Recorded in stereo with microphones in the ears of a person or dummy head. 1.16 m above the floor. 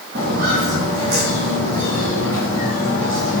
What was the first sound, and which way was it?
Footsteps, 60° right (ahead or behind).